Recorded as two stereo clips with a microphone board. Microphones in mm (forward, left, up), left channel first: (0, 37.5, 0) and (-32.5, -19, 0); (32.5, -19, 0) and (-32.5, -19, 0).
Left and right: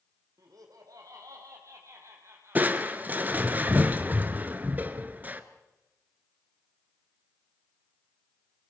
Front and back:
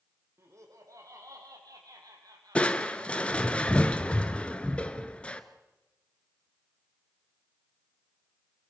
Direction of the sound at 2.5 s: 70° right.